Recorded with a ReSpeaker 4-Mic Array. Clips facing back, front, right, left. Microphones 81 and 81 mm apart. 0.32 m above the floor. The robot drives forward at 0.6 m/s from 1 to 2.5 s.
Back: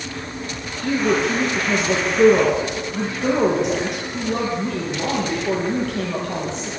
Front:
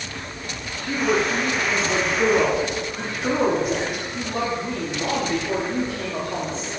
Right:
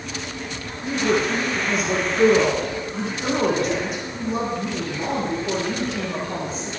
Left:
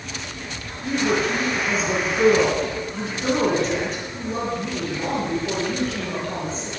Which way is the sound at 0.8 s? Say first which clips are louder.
Back 2 dB, even; 175° right.